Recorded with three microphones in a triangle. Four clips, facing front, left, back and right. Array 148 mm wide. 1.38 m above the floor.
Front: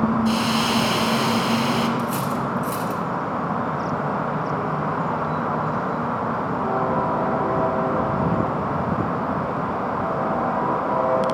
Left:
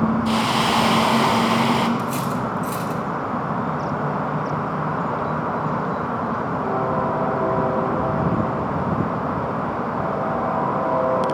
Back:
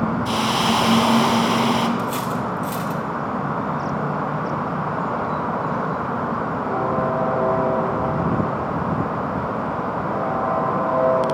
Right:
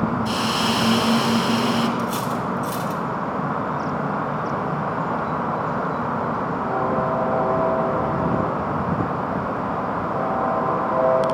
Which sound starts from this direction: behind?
Cutlery clinking, at 2.0 s.